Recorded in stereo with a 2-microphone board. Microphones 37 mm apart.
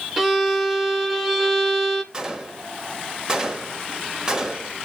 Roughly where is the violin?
Centre.